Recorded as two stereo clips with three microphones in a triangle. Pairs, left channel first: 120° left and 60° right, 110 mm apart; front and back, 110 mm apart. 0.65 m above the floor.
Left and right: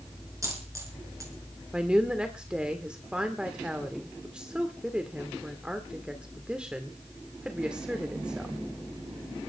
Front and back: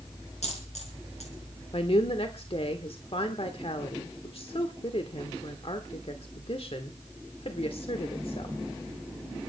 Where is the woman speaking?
20° left, 1.6 m.